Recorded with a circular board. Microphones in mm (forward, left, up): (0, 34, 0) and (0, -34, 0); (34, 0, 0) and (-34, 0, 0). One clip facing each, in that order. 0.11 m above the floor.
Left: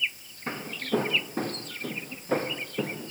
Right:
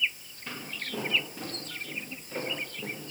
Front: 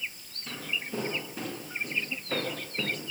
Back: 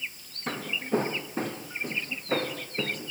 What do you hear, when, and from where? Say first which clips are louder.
0.5 s footsteps: left 8 dB, back 7 dB; 140° left, 4 m; by 3.1 s 105° left, 4.5 m